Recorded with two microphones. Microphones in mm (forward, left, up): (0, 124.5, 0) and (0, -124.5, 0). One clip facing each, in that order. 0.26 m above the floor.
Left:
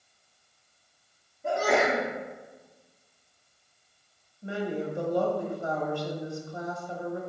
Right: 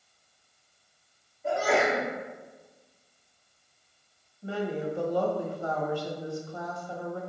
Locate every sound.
1.4 s a sneeze: 50° left (ahead or behind), 1.8 m
4.4 s a woman speaking: 20° left (ahead or behind), 1.0 m